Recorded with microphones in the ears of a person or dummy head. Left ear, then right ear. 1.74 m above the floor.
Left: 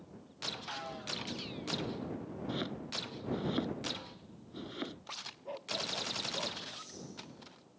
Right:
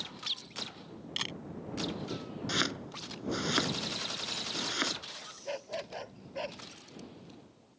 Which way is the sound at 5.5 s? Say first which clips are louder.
Left 1 dB; 70° right (ahead or behind).